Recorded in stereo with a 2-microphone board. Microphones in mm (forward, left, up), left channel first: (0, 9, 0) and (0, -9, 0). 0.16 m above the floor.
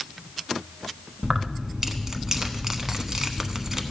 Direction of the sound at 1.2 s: 30° right (ahead or behind).